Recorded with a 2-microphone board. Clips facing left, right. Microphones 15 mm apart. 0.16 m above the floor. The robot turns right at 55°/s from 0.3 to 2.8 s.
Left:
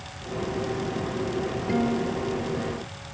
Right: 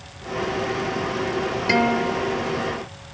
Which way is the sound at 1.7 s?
85° right.